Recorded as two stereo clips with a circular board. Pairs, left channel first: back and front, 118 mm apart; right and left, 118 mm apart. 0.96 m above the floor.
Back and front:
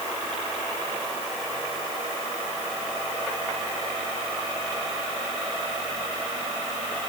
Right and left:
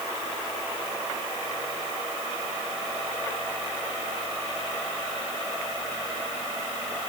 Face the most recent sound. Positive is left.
No sound to turn to.